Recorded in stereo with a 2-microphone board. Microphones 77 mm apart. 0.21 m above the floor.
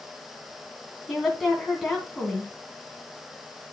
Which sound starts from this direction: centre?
A woman speaking, at 1.1 s.